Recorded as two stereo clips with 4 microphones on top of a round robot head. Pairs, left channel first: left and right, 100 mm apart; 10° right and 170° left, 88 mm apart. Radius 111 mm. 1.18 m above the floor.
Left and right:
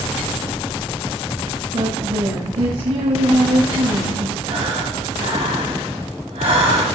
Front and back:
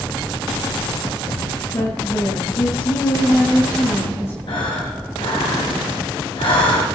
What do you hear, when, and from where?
1.7 s a woman speaking: 75° right, 8.5 m
4.5 s breathing: 55° right, 3.5 m